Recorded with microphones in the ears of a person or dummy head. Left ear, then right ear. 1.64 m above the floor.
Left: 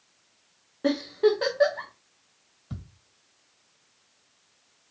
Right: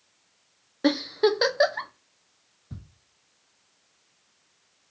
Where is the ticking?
55° left (ahead or behind), 2.5 m.